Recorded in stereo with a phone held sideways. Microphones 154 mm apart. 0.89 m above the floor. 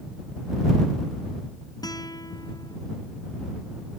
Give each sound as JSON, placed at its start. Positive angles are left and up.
{"t": 1.8, "sound": "a guitar", "side_deg": 25}